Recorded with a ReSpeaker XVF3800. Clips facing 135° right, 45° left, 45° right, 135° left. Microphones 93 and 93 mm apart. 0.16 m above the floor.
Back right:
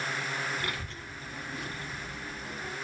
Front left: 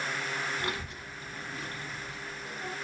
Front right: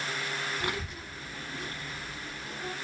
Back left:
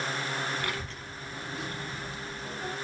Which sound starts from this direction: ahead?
A child speaking, at 0.6 s.